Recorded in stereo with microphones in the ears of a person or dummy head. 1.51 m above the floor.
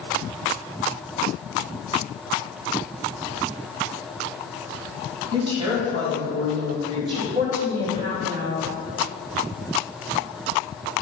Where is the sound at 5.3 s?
35° right (ahead or behind), 2.5 m.